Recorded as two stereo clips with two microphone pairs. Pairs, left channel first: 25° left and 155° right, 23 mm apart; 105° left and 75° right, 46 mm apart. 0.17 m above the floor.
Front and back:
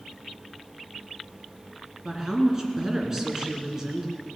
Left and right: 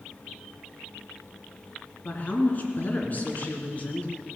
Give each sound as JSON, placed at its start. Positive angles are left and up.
{"t": 2.0, "sound": "a woman speaking", "azimuth_deg": 145, "distance_m": 2.0}